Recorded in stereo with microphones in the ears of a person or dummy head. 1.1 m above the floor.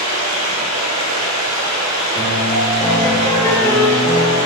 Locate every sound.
0.0 s running water: 80° right, 1.9 m
2.1 s a piano: 15° left (ahead or behind), 2.5 m